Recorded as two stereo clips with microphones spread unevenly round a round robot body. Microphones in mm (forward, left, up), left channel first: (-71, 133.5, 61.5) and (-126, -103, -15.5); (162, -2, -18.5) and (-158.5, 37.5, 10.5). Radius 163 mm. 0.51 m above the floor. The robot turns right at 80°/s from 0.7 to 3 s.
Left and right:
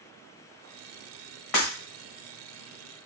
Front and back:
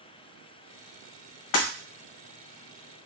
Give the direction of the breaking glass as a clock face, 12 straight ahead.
11 o'clock.